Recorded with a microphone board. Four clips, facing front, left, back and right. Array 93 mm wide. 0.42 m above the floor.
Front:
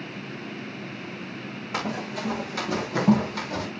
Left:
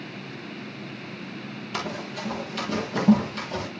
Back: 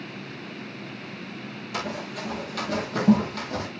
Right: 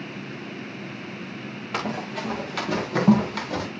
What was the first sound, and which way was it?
Running footsteps, 60° right.